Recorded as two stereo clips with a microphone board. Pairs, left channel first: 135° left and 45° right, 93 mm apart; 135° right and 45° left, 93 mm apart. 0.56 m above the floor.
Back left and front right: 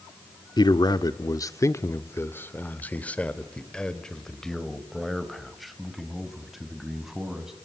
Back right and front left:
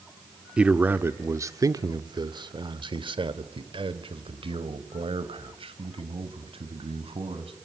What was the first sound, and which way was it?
A man speaking, 120° left.